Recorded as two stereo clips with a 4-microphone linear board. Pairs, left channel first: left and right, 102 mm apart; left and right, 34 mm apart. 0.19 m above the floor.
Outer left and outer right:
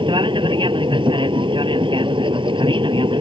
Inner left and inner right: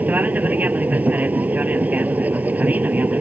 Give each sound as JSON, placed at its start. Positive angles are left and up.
{"t": 0.0, "sound": "an aircraft", "side_deg": -55}